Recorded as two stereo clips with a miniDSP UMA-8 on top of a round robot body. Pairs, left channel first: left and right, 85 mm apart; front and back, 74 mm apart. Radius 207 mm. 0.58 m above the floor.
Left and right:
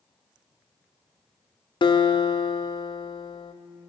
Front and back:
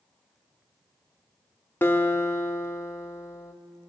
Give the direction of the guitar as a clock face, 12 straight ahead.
10 o'clock.